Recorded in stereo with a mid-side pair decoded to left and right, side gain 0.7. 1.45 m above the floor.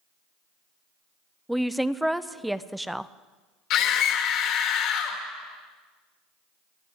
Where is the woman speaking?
5° right, 0.6 m.